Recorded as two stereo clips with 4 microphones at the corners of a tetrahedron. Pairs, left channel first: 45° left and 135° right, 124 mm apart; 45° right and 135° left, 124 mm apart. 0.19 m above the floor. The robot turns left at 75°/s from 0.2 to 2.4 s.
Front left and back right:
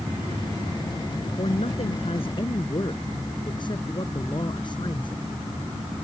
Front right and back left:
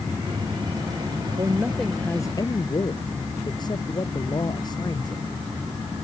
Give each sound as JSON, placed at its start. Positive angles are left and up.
{"t": 1.4, "sound": "a man speaking", "azimuth_deg": 80}